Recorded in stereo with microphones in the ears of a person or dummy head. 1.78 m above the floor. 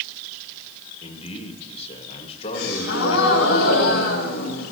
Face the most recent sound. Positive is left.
turn(degrees=85)